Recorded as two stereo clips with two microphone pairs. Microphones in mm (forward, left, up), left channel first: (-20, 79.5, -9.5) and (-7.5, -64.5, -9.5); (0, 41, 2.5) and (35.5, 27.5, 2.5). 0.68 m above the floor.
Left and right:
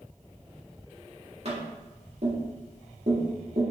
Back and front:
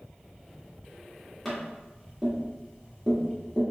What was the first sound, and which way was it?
Tapping, 120° right.